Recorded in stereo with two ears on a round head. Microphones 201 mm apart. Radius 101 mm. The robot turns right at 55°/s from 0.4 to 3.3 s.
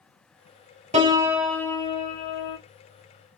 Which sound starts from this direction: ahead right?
A piano, at 0.9 s.